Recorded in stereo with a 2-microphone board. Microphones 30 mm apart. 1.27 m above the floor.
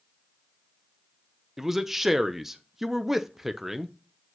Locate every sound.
1.6 s a man speaking: 10° right (ahead or behind), 0.5 m